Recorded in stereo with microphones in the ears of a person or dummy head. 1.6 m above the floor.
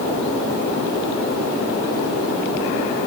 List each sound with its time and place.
Only background noise.